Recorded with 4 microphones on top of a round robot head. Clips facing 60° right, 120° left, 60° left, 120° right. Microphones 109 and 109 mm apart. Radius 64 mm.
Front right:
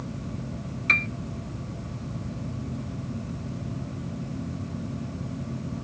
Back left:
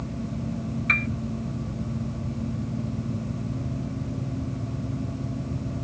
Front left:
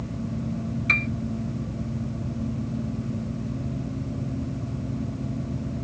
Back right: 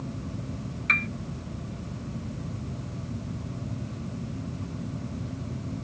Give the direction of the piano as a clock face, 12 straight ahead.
12 o'clock.